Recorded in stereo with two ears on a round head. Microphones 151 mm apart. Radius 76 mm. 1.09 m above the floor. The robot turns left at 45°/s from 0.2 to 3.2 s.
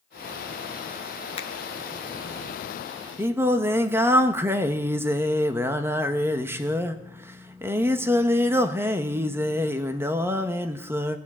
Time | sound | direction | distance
1.4 | a finger snap | 35° left (ahead or behind) | 0.8 m
3.2 | singing | 10° right (ahead or behind) | 0.7 m